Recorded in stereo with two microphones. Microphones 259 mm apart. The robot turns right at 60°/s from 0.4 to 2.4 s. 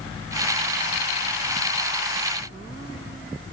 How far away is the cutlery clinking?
No cutlery clinking in this recording.